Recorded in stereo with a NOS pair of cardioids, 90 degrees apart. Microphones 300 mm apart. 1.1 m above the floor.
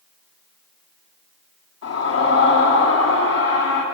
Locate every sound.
1.8 s a scream: 55° left, 9 m